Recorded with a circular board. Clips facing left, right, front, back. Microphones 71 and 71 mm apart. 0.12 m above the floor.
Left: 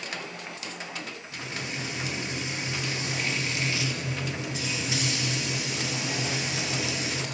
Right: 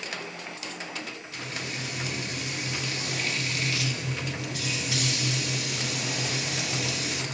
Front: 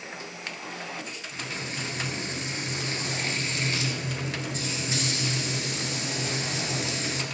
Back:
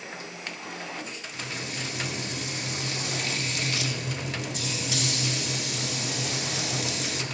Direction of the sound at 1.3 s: 35° left.